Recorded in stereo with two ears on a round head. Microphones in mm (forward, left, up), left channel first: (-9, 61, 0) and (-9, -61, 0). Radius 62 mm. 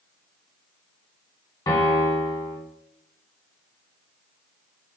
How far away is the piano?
About 1.2 m.